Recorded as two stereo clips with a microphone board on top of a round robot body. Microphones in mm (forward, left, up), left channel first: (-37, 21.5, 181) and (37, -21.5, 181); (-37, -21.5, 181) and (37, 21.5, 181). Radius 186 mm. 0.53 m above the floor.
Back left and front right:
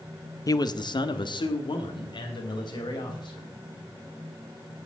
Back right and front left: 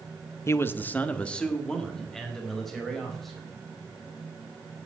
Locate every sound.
0.5 s a man speaking: 165° left, 1.0 m; by 3.5 s 120° left, 4.5 m